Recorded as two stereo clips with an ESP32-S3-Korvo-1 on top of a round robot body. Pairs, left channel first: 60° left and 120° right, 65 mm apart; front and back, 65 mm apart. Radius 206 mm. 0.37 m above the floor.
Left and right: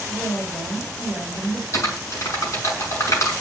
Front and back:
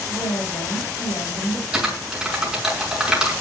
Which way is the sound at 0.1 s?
10° left.